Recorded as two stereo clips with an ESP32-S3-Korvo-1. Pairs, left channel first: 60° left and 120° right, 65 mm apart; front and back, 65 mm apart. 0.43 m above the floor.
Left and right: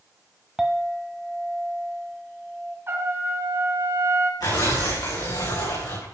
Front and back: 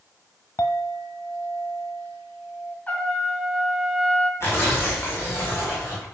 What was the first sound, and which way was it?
A clink, 35° right.